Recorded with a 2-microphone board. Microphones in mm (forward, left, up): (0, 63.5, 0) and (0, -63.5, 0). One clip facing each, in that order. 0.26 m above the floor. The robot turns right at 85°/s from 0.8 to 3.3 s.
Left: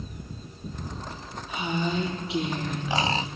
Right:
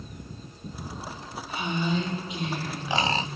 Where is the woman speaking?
15° left, 9 m; by 3.3 s 165° left, 9 m.